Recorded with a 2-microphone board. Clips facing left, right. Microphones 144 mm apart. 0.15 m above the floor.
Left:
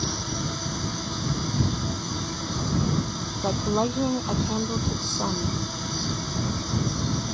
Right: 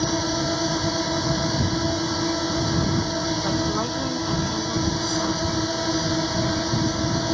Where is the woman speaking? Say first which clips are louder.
Even; 25° left (ahead or behind).